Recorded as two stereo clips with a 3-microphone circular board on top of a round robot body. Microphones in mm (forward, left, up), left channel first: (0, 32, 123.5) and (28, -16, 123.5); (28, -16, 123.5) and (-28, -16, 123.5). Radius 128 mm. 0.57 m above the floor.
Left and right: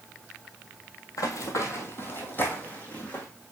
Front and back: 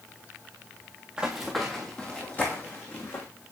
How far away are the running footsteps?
About 1.1 m.